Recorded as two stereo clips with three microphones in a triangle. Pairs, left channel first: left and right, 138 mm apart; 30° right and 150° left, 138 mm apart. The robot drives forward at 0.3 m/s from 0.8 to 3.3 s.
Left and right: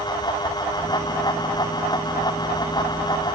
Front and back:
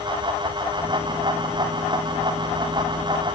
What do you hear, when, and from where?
Only background noise.